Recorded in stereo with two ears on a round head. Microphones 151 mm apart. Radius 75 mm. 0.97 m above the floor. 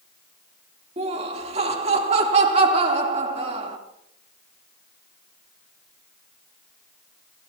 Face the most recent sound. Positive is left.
turn(degrees=-40)  # may be behind; listen again after turning